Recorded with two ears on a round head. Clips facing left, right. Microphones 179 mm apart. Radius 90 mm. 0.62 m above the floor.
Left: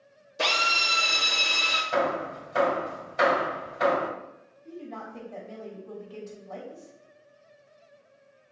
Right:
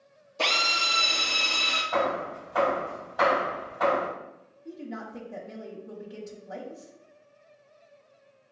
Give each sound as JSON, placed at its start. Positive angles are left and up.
{"t": 0.4, "sound": "a drill", "side_deg": 20, "distance_m": 1.0}
{"t": 1.9, "sound": "hammering", "side_deg": 35, "distance_m": 2.0}
{"t": 4.7, "sound": "a woman speaking", "side_deg": -20, "distance_m": 1.1}